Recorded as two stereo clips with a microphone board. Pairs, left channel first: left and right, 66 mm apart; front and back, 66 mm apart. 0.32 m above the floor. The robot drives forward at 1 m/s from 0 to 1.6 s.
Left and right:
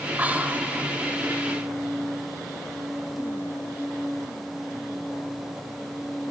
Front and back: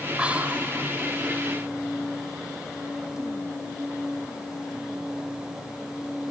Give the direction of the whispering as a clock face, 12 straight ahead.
4 o'clock.